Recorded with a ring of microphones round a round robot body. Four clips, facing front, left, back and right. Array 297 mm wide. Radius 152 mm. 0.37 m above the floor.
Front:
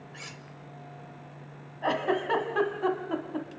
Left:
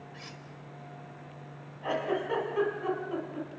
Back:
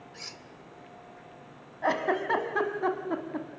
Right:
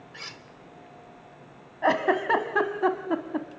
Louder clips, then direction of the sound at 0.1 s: Right 2 dB, front 2 dB; 75° right.